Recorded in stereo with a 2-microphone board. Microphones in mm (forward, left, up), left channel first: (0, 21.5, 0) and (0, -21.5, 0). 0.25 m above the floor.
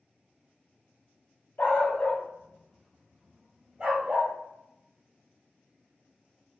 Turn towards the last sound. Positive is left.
turn(degrees=-35)  # may be behind; listen again after turning